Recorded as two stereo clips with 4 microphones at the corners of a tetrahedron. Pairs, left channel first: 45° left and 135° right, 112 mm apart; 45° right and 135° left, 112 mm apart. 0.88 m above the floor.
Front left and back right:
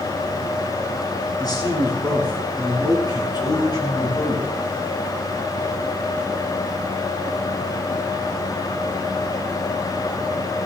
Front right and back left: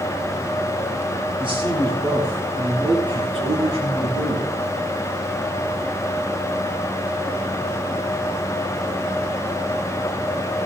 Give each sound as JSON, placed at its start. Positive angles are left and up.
{"t": 1.4, "sound": "a man speaking", "azimuth_deg": 95, "distance_m": 9.0}